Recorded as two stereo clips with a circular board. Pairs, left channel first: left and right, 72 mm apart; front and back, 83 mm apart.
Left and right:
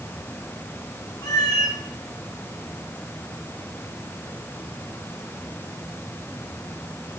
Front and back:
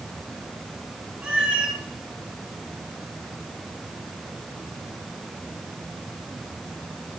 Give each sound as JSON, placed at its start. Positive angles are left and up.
{"t": 1.2, "sound": "a cat meowing", "azimuth_deg": 105, "distance_m": 1.5}